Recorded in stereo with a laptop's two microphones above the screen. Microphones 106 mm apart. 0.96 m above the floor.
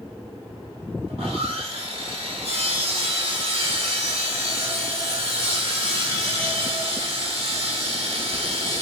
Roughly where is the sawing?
Right.